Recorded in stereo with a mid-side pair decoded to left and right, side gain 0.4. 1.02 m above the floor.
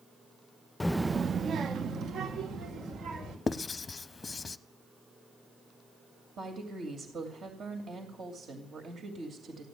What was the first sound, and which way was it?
A child speaking, 25° left.